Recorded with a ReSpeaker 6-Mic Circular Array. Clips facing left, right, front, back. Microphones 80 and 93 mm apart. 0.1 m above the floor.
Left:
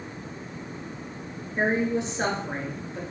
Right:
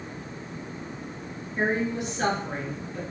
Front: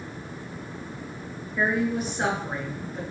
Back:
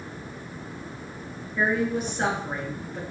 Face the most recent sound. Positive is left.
turn(degrees=85)